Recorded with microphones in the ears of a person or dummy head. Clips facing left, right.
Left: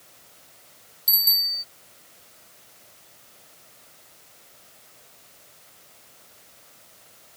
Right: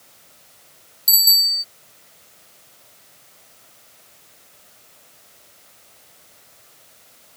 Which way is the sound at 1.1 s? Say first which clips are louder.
Right 6 dB; 5° right (ahead or behind).